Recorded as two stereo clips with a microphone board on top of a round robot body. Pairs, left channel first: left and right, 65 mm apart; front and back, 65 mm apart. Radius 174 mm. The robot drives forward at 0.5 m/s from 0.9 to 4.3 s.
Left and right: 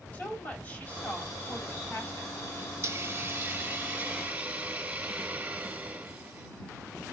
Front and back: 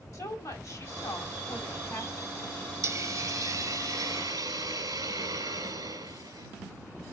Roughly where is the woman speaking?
Ahead left.